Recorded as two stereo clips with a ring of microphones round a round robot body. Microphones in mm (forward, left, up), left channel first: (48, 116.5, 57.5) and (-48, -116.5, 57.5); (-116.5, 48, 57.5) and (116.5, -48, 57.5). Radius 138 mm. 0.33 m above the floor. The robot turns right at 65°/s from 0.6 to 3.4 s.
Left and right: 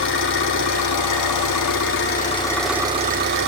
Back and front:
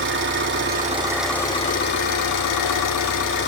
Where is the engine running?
25° left, 5.5 m; by 3.5 s 155° right, 5.5 m.